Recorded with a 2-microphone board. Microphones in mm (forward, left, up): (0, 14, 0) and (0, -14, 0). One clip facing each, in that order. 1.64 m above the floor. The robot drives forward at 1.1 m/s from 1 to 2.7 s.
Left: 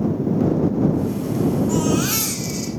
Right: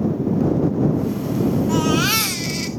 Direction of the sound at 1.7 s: 35° right (ahead or behind).